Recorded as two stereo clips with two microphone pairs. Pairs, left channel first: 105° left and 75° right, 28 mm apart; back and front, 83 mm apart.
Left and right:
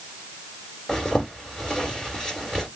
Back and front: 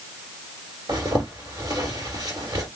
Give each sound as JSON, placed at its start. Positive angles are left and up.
{"t": 0.9, "sound": "a zipper", "azimuth_deg": 35, "distance_m": 1.8}